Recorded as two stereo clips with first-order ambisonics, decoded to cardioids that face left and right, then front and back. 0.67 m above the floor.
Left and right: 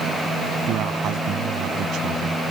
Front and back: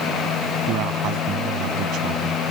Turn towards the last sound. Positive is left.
turn(degrees=-135)